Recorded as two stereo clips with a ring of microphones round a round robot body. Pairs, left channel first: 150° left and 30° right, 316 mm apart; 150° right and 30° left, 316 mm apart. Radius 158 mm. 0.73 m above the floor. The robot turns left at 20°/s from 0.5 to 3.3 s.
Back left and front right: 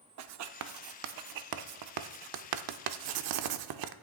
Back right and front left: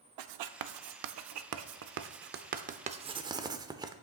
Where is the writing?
10° left, 0.6 m; by 3.9 s 50° right, 0.6 m.